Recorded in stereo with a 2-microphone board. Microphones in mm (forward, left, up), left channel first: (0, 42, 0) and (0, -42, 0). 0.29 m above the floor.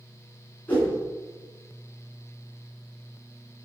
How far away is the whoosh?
About 3.5 m.